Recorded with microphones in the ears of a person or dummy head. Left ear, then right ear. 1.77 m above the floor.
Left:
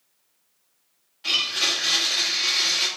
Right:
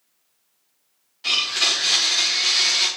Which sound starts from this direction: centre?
A blender, at 1.2 s.